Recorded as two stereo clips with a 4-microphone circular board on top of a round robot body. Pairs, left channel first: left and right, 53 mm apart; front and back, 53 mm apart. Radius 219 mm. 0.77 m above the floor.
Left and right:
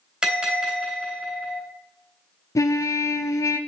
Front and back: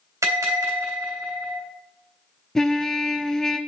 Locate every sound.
0.2 s a bell: 165° right, 3.5 m
2.5 s a trumpet: 80° left, 0.5 m